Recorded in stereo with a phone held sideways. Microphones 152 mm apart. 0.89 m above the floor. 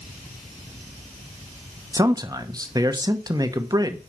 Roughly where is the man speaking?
Right.